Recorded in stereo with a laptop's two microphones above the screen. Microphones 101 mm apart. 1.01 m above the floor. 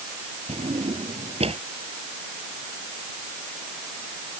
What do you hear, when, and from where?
0.5 s a drawer: 85° right